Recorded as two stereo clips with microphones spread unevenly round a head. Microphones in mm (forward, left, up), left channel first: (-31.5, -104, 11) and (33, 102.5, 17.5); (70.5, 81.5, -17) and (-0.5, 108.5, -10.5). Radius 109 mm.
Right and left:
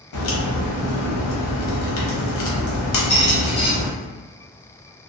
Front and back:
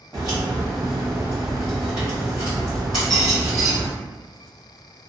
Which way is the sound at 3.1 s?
120° right.